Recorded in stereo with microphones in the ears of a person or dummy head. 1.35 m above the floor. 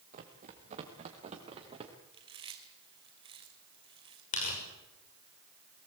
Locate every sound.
0.1 s running footsteps: 40° right (ahead or behind), 3.5 m; by 1.9 s 30° right (ahead or behind), 5.5 m
2.1 s chewing: 25° right (ahead or behind), 3 m
4.3 s tearing paper: 40° left (ahead or behind), 6.5 m